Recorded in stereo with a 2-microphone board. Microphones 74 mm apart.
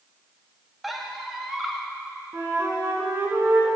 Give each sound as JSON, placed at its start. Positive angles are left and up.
{"t": 0.8, "sound": "a squeak", "side_deg": 0, "distance_m": 0.7}
{"t": 2.3, "sound": "a flute", "side_deg": -35, "distance_m": 1.5}